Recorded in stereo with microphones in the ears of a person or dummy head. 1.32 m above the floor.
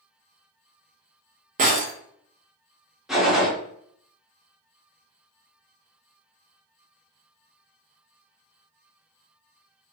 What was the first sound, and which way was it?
Breaking glass, 35° right (ahead or behind).